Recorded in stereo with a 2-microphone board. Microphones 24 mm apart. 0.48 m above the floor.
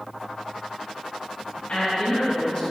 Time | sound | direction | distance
1.7 | a woman speaking | 50° left (ahead or behind) | 3 m